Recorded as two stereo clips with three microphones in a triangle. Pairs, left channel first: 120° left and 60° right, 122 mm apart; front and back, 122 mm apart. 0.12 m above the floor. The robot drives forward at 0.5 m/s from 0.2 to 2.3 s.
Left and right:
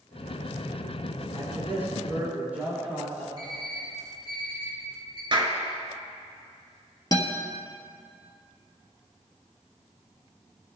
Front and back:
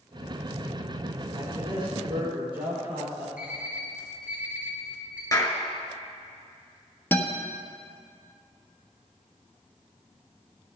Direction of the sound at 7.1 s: 70° left.